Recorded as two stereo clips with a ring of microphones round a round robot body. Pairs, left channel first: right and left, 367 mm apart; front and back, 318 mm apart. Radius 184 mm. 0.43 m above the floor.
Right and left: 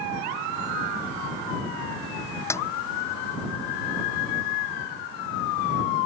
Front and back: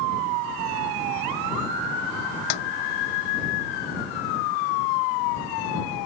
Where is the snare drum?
5° right.